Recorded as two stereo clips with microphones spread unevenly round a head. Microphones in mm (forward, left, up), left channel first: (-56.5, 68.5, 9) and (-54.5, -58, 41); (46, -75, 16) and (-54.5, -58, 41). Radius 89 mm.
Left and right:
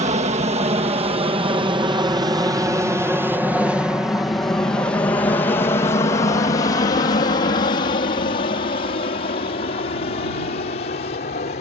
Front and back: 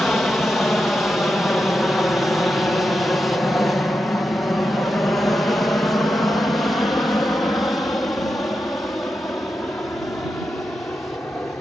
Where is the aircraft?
85° right; by 11.6 s 75° left.